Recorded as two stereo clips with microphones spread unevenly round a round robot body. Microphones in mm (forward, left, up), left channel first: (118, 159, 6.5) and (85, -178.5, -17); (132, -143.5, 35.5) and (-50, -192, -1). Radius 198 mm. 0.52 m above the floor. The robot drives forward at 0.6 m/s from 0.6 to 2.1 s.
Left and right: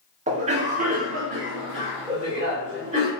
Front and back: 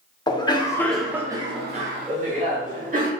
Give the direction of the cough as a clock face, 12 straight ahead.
2 o'clock.